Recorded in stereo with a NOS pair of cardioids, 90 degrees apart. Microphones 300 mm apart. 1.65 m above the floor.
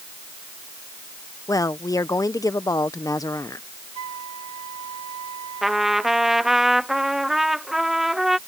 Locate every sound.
1.5 s a woman speaking: 10° left
4.0 s a flute: 60° right
5.6 s a trumpet: straight ahead